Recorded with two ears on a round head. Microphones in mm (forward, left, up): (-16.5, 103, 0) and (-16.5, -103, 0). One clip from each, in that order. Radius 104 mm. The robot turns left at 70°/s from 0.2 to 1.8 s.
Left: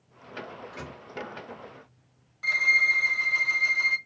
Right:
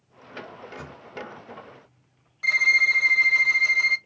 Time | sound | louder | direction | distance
0.5 | a microwave | right 1 dB | 35° left (ahead or behind) | 1.6 m
2.4 | a violin | right 3 dB | 15° right (ahead or behind) | 0.5 m